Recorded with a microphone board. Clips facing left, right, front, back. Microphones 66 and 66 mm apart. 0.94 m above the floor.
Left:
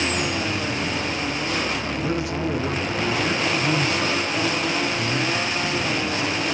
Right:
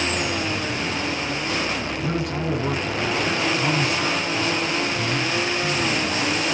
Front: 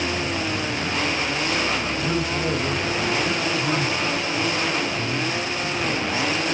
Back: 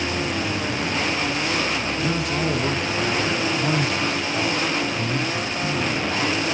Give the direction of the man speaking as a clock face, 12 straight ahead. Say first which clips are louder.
Left 1 dB, back 2 dB; 6 o'clock.